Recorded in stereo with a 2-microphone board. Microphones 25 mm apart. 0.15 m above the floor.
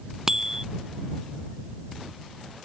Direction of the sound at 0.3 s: 20° right (ahead or behind).